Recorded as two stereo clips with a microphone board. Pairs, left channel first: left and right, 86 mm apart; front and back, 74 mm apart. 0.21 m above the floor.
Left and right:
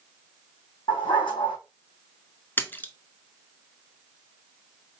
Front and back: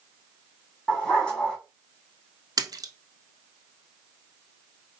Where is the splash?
155° left, 0.6 m.